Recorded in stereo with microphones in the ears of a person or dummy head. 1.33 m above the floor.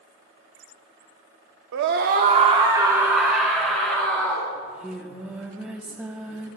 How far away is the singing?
About 0.9 m.